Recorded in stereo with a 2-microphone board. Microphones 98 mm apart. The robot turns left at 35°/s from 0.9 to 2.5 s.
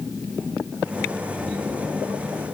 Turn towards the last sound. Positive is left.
No sound to turn to.